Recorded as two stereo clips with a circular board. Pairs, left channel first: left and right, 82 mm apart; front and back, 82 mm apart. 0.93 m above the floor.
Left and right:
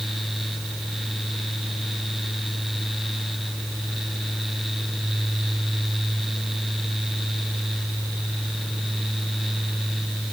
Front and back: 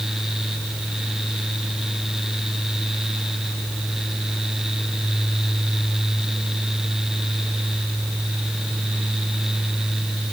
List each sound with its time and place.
Only background noise.